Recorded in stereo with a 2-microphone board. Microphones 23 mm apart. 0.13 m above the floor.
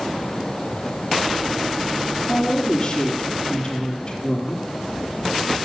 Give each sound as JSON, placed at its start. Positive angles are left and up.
{"t": 2.3, "sound": "a woman speaking", "side_deg": 30, "distance_m": 3.0}